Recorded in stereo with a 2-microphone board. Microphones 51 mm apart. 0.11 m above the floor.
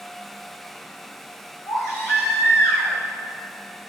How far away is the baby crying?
About 3.5 m.